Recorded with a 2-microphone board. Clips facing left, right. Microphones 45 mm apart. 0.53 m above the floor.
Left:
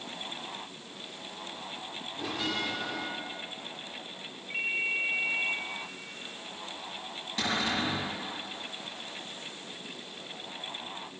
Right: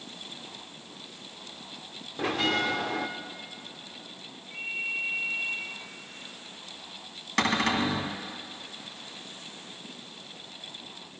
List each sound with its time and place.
2.2 s a bell: 55° right (ahead or behind), 0.8 m
4.5 s a ringtone: 70° left (ahead or behind), 1.5 m
7.4 s a cupboard door: 70° right (ahead or behind), 1.6 m